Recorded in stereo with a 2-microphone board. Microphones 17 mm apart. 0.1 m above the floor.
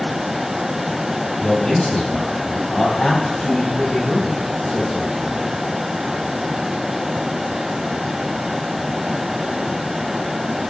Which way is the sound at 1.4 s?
55° left (ahead or behind).